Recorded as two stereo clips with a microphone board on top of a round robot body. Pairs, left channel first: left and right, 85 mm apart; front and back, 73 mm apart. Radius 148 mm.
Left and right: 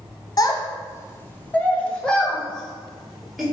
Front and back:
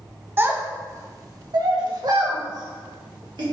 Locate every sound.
0.4 s a child speaking: 125° left, 1.0 m; by 3.4 s straight behind, 2.0 m